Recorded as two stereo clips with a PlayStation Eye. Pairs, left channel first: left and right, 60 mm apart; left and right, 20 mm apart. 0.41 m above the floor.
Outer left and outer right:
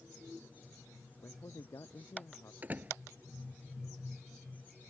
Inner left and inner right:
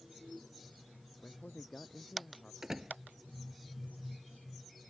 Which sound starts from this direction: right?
A door slam, at 2.6 s.